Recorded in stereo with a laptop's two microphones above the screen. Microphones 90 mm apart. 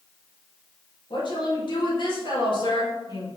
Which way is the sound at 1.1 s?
60° left (ahead or behind).